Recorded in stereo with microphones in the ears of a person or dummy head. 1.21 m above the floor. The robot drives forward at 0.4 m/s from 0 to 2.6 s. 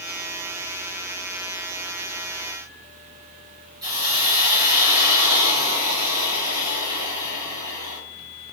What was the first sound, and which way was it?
A hiss, 25° right (ahead or behind).